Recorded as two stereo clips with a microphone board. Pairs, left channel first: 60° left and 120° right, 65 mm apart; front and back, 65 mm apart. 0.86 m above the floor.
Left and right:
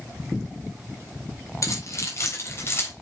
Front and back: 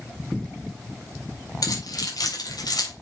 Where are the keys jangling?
20° left, 4 m; by 2.9 s 5° left, 3.5 m.